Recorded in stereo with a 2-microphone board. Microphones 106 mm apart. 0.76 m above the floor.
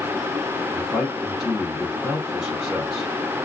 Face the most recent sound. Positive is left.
turn(degrees=5)  # may be behind; listen again after turning